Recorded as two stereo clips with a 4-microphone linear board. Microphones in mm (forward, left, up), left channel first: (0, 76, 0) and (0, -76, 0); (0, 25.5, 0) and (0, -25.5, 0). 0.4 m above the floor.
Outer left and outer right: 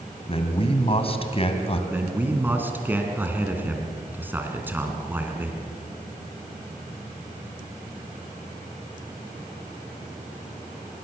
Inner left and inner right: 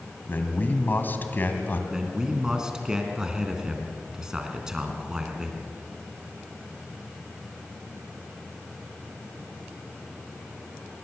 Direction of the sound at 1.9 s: 10° right (ahead or behind).